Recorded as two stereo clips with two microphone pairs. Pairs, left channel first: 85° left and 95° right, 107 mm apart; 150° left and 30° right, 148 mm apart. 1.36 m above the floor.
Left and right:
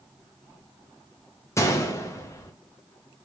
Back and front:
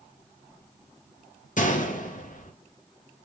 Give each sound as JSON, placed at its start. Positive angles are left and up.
{"t": 1.6, "sound": "a gunshot", "azimuth_deg": 145, "distance_m": 0.6}